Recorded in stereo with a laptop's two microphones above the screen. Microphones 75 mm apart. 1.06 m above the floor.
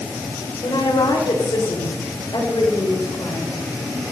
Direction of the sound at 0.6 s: 85° left.